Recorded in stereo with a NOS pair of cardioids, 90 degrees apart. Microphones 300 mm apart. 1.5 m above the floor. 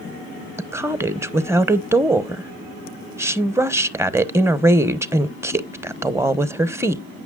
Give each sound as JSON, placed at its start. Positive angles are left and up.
{"t": 0.6, "sound": "a woman speaking", "azimuth_deg": -10, "distance_m": 0.9}